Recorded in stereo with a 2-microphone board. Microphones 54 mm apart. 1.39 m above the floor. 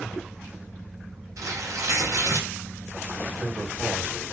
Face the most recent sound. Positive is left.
turn(degrees=-30)  # may be behind; listen again after turning